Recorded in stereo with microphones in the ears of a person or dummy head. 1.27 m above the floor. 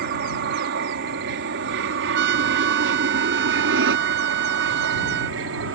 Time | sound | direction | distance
0.0 | an aircraft | 60° right (ahead or behind) | ?
2.1 | a trumpet | 55° right (ahead or behind) | ?